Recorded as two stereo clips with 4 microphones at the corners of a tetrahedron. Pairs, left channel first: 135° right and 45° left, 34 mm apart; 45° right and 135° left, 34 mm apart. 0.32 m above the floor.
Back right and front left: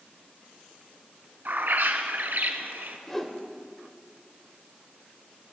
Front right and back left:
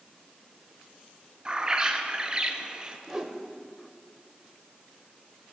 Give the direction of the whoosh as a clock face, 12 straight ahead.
6 o'clock.